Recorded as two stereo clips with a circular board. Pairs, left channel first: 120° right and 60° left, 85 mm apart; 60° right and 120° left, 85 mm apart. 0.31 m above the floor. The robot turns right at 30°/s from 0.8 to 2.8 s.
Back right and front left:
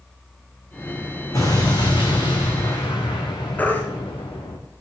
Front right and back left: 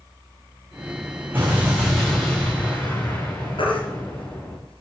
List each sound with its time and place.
1.3 s an explosion: 170° right, 5 m; by 4.6 s 125° right, 5 m
3.6 s a baby crying: 50° right, 3 m